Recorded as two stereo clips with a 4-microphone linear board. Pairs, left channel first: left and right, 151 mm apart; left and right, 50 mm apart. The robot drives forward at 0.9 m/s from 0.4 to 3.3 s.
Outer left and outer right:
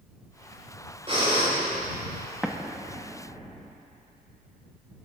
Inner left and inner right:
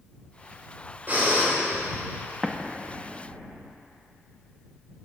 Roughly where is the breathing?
Right.